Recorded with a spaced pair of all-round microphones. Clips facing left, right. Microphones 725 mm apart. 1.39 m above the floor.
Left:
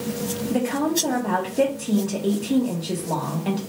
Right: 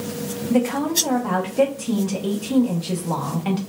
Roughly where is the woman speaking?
Right.